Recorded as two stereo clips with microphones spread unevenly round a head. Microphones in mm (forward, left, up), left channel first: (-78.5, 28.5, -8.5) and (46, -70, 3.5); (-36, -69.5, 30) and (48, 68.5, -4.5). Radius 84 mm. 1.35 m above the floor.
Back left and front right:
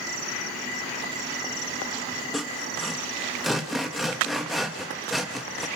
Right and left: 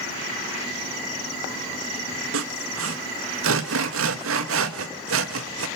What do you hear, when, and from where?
2.3 s sawing: 50° left, 1.4 m